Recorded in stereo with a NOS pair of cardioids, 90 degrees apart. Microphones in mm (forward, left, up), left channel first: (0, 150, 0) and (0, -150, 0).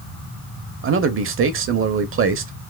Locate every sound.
0.8 s a man speaking: 45° right, 0.9 m